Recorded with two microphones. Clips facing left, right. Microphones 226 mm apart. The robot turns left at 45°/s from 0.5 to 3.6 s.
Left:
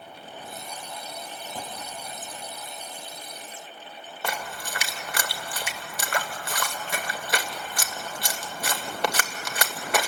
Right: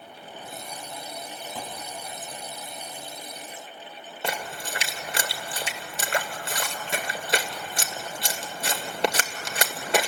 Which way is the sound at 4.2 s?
25° right (ahead or behind).